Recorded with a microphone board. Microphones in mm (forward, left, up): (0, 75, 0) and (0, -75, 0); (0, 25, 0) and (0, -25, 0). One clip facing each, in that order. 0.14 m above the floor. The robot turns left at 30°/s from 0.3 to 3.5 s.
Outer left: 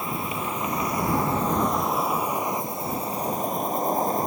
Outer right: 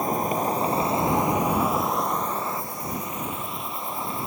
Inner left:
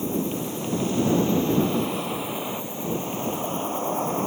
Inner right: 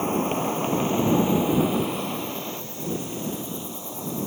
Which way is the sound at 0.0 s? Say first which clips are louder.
Outer right 6 dB, inner right 3 dB; 130° right.